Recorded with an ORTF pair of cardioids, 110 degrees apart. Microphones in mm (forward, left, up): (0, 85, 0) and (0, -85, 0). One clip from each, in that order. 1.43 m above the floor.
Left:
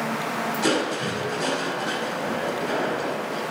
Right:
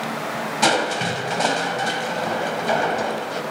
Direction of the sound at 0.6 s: 70° right.